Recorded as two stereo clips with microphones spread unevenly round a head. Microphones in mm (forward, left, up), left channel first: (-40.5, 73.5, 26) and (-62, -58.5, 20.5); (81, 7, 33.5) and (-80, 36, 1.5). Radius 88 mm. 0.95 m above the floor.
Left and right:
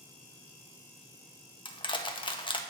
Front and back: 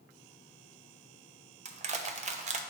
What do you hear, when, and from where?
1.6 s crushing: 135° left, 1.0 m